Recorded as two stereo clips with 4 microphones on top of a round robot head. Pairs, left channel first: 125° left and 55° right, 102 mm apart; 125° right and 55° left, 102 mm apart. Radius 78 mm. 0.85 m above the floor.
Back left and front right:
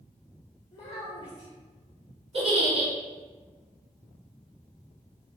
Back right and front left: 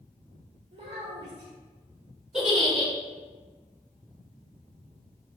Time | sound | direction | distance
0.7 | a child speaking | 70° left | 1.4 m
2.3 | a giggle | 30° right | 1.8 m